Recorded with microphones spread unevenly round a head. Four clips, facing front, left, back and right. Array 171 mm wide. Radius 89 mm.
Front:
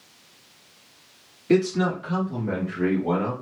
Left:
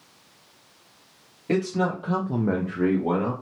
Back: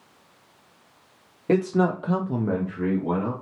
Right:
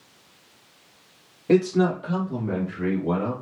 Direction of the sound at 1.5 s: 155° right.